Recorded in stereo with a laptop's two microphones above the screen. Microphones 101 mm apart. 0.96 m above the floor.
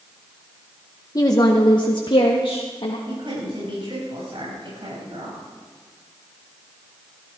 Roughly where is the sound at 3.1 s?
Right.